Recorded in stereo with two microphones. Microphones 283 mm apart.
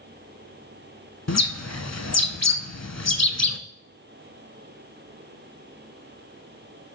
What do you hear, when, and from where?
1.3 s a bird: 65° left (ahead or behind), 0.6 m